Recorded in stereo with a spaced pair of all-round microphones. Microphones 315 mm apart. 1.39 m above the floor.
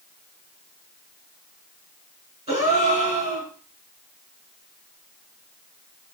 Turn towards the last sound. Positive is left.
turn(degrees=-20)  # may be behind; listen again after turning